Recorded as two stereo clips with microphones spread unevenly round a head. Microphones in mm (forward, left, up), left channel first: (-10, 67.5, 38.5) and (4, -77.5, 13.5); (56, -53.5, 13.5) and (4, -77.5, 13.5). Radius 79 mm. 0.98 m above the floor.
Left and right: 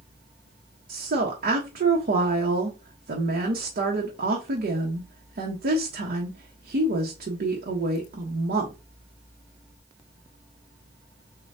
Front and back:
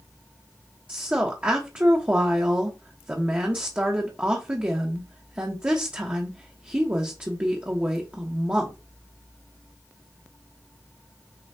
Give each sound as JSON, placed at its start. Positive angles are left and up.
{"t": 0.9, "sound": "a woman speaking", "azimuth_deg": -90, "distance_m": 1.0}